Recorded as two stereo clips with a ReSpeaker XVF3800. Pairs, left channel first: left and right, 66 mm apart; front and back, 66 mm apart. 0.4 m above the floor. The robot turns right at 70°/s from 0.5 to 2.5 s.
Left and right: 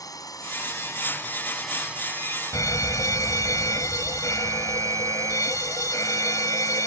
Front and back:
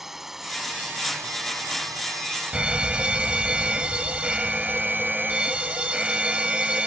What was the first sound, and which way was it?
A drone, 95° left.